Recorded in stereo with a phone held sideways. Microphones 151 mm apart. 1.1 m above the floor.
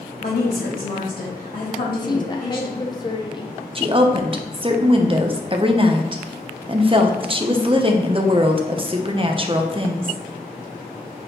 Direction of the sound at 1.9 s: 25° left (ahead or behind).